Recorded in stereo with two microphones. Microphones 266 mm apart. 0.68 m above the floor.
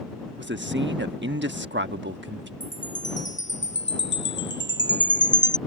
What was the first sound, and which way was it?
A man speaking, 40° right (ahead or behind).